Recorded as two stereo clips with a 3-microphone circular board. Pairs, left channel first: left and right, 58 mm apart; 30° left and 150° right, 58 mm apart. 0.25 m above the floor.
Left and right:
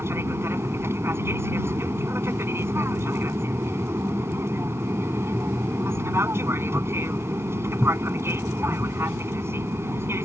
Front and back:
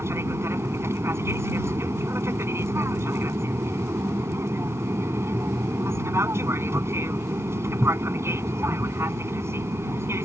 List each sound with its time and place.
0.0 s an aircraft: 125° right